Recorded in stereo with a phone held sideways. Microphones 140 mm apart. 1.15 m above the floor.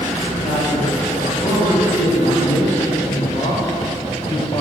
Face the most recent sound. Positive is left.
turn(degrees=30)  # may be behind; listen again after turning